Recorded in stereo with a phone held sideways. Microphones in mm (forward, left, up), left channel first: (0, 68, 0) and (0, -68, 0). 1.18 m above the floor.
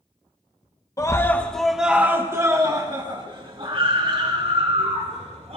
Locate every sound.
1.0 s a scream: 25° left (ahead or behind), 1.4 m; by 5.6 s 55° right (ahead or behind), 4.5 m